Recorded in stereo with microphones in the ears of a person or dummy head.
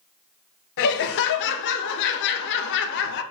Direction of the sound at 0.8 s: 65° left (ahead or behind).